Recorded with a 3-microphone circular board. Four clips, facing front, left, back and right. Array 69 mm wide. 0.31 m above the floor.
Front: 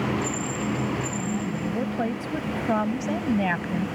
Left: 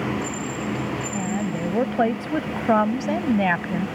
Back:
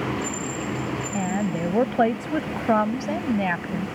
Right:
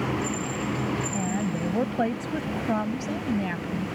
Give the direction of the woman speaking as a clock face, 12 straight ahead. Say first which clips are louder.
Left 2 dB, back 3 dB; 6 o'clock.